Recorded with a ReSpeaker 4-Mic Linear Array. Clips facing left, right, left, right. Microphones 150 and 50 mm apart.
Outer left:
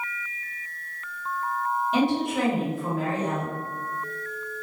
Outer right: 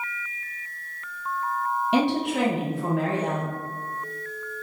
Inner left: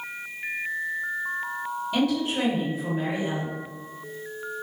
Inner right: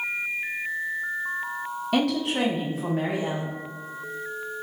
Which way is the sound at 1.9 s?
80° right.